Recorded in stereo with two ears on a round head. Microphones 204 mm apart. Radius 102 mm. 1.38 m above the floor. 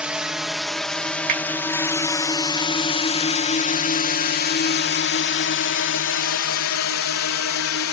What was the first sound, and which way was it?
A drone, 5° right (ahead or behind).